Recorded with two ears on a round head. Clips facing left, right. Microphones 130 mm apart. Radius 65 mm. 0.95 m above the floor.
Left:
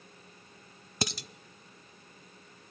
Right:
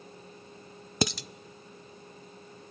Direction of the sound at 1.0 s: 60° right (ahead or behind).